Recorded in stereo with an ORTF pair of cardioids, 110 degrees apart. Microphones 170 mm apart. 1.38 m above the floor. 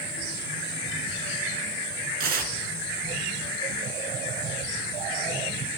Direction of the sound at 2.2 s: 60° right.